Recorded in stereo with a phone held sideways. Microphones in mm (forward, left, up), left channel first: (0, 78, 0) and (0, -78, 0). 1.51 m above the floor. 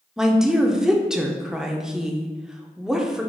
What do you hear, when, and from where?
0.2 s a woman speaking: 5° right (ahead or behind), 0.6 m